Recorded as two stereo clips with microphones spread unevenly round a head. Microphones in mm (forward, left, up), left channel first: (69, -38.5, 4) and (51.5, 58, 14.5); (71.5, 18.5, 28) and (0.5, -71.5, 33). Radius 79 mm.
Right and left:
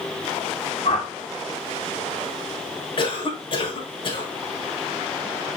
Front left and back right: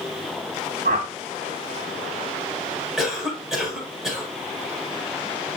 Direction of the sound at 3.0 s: 45° right.